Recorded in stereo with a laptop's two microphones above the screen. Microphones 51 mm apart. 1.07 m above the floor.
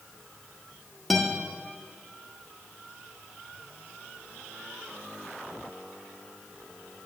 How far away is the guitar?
About 0.8 m.